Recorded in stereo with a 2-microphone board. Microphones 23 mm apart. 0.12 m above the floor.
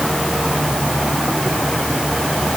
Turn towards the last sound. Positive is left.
No sound to turn to.